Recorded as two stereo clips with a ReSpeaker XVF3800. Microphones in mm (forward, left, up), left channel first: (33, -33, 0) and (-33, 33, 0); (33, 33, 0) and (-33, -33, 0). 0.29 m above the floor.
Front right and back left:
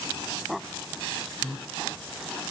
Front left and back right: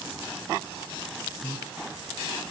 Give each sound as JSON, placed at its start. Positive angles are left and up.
{"t": 1.4, "sound": "breathing", "azimuth_deg": 145, "distance_m": 0.7}